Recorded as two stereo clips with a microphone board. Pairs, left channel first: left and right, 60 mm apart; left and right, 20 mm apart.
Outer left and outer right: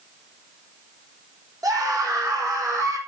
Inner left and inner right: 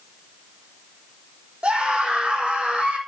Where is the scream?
75° right (ahead or behind), 5 m.